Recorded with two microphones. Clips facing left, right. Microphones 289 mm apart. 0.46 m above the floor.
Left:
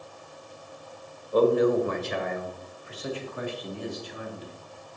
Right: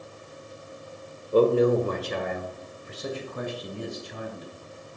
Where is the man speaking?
30° right (ahead or behind), 1.2 m; by 4.5 s 50° right (ahead or behind), 2.5 m.